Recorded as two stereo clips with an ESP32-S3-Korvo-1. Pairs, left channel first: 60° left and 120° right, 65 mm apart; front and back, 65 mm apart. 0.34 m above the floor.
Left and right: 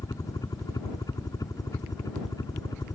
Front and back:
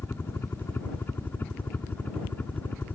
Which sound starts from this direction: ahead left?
A helicopter, at 0.0 s.